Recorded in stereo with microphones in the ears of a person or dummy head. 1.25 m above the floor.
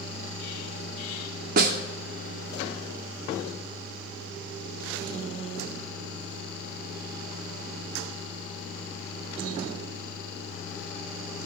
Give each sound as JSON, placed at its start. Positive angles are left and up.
{"t": 1.6, "sound": "a snare drum", "side_deg": -50, "distance_m": 1.0}